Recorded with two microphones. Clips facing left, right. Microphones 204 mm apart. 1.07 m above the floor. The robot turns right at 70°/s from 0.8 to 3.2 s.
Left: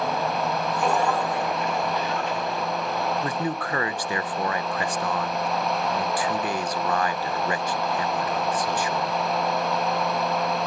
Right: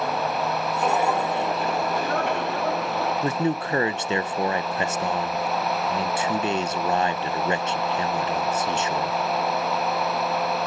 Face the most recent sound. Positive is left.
turn(degrees=-25)  # may be behind; listen again after turning